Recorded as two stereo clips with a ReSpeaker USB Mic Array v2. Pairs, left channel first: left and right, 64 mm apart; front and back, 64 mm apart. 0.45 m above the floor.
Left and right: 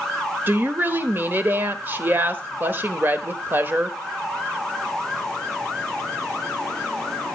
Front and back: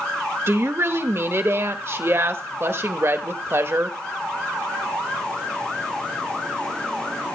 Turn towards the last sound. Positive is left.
turn(degrees=-140)